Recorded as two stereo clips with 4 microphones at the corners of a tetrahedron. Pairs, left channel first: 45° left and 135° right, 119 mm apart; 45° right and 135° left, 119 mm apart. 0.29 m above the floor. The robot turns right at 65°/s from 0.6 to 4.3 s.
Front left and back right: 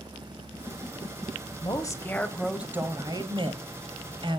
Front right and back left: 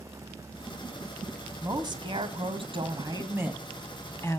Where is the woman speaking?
80° left, 1.4 m; by 4.4 s 105° right, 1.4 m.